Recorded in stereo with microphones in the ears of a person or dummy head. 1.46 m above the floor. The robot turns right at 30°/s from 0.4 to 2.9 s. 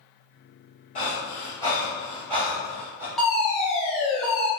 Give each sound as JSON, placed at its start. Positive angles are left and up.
{"t": 0.9, "sound": "breathing", "side_deg": 40, "distance_m": 1.3}
{"t": 3.2, "sound": "a fire alarm", "side_deg": 5, "distance_m": 1.2}